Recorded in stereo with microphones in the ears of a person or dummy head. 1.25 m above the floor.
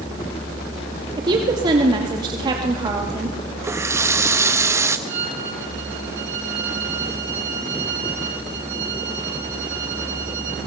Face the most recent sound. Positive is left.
turn(degrees=-40)  # may be behind; listen again after turning